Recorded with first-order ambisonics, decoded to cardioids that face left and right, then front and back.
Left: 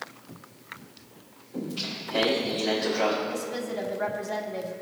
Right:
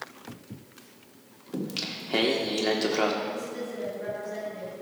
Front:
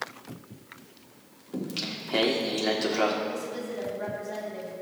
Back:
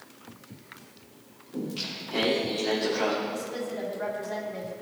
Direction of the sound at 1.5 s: 60° right.